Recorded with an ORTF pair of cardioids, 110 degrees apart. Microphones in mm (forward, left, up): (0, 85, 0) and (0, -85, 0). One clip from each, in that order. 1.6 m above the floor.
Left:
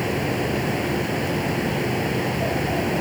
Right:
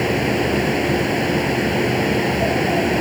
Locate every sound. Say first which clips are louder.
0.0 s a fan: right 5 dB; 35° right